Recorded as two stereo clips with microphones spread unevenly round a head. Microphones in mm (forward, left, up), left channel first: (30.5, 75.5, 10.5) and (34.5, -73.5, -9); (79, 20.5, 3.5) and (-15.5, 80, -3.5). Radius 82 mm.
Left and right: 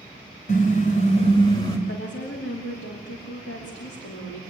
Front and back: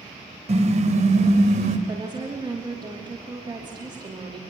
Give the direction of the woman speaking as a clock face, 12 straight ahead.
9 o'clock.